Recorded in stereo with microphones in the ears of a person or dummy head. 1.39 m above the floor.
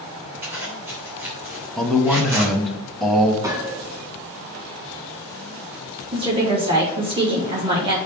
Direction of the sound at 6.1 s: 20° right (ahead or behind).